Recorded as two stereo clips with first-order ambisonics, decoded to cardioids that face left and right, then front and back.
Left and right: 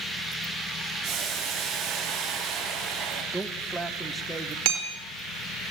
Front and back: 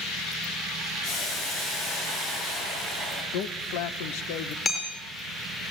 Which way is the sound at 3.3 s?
5° right.